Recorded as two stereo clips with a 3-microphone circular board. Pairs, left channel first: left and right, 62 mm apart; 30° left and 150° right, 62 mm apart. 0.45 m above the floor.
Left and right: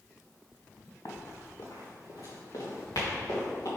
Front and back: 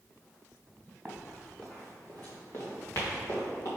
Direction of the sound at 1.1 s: 110° left.